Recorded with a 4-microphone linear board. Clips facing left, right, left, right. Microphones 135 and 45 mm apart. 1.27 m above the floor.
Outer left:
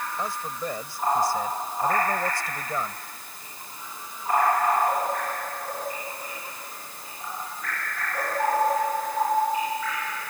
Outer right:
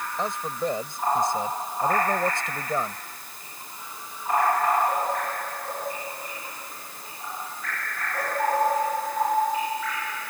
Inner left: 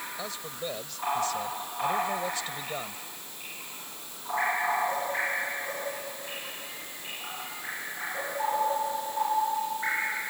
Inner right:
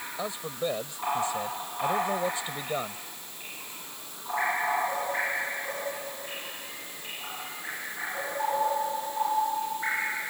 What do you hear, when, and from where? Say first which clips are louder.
0.2 s a man speaking: outer right 6 dB, inner right 9 dB; 20° right (ahead or behind)